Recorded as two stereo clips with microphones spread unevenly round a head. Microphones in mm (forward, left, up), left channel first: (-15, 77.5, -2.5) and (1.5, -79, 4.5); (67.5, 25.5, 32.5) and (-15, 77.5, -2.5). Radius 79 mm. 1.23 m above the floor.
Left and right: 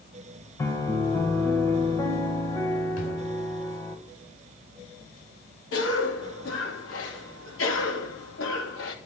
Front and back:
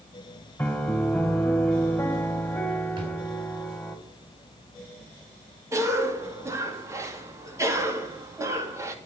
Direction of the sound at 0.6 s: 20° left.